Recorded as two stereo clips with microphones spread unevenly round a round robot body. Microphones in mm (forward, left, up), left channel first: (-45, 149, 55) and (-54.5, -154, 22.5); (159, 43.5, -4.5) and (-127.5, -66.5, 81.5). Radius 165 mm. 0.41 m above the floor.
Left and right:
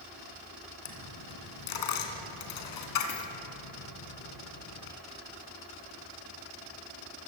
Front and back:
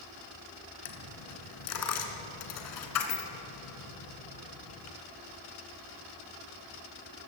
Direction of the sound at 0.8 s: 60° left.